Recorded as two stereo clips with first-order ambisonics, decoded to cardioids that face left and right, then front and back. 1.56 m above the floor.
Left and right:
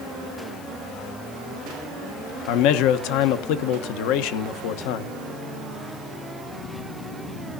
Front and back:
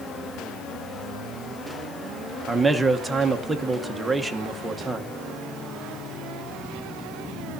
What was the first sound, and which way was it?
A man speaking, 95° left.